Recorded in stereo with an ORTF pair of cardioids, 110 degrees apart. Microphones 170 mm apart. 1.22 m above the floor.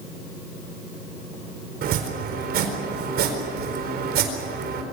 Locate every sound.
1.8 s chopping: 65° right, 4 m